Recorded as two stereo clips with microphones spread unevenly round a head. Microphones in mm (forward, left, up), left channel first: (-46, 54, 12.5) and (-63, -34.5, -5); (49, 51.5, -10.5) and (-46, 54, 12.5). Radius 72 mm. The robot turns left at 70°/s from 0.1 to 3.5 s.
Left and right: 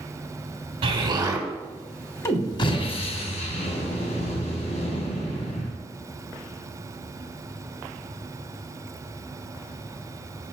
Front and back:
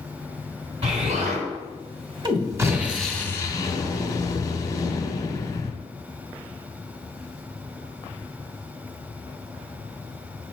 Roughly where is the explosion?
Behind right.